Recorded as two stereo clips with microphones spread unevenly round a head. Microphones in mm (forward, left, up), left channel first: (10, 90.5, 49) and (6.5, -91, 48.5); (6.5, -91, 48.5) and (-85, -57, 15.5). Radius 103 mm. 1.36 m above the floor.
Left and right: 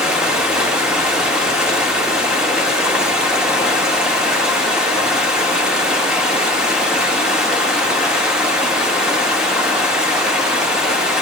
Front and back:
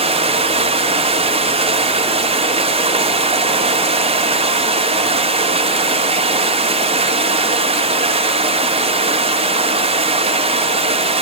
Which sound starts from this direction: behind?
Running water, at 0.0 s.